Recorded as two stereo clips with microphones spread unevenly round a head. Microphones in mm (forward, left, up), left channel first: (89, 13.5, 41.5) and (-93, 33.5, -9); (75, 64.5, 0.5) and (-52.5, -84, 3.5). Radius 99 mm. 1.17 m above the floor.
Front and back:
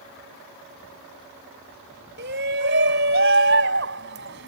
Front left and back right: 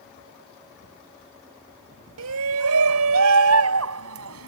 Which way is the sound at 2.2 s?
145° right.